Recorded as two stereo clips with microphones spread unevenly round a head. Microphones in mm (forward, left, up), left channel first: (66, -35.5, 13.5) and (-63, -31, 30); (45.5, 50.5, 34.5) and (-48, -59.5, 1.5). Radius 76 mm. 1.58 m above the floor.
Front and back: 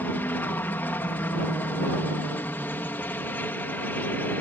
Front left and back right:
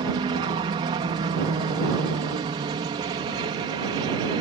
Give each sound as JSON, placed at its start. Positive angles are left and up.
{"t": 0.0, "sound": "a helicopter", "azimuth_deg": -75}